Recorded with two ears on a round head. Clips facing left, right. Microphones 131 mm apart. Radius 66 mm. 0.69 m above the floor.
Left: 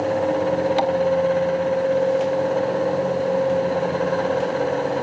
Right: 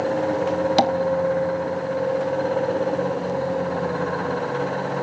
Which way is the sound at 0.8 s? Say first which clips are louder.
Right 1 dB; 45° right (ahead or behind).